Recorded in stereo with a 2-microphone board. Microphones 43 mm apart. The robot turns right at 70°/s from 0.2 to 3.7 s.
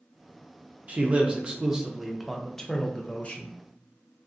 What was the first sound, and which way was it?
A man speaking, 90° right.